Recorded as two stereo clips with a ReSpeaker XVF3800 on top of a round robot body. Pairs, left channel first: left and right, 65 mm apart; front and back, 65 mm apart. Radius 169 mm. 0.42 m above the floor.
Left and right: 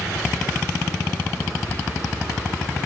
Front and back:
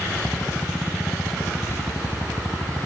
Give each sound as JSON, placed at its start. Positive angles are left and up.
{"t": 1.7, "sound": "whispering", "azimuth_deg": 40, "distance_m": 1.4}